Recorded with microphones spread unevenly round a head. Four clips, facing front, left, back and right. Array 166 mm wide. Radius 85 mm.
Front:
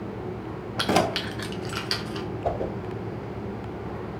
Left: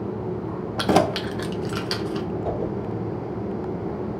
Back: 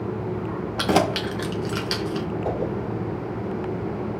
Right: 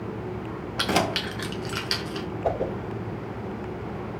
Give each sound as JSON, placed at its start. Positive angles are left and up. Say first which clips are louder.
{"t": 0.8, "sound": "keys jangling", "louder": "left 6 dB, back 2 dB", "azimuth_deg": 90, "distance_m": 0.7}
{"t": 2.4, "sound": "a whoosh", "louder": "right 4 dB, front 1 dB", "azimuth_deg": -65, "distance_m": 4.0}